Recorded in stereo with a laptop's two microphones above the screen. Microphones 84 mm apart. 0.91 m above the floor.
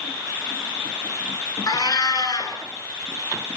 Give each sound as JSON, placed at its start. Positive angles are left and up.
{"t": 1.7, "sound": "a cat meowing", "side_deg": 45, "distance_m": 3.5}